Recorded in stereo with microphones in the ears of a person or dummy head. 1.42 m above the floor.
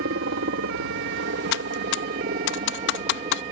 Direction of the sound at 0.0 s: 65° right (ahead or behind).